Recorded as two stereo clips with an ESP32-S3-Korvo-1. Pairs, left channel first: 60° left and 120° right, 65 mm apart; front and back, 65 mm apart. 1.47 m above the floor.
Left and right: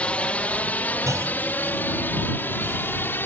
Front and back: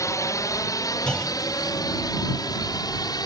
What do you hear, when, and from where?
0.0 s a drone: 10° right; by 3.3 s straight ahead
1.1 s a clunk: 80° right